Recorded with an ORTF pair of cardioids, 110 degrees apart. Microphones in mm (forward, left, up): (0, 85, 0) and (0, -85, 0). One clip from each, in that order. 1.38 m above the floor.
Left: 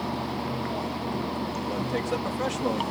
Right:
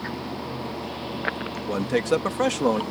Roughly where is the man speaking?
Ahead right.